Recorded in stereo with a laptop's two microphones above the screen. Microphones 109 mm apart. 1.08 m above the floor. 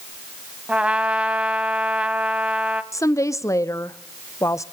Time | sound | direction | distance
0.7 | a trumpet | 10° right (ahead or behind) | 1.0 m
2.9 | a woman speaking | 30° left (ahead or behind) | 0.5 m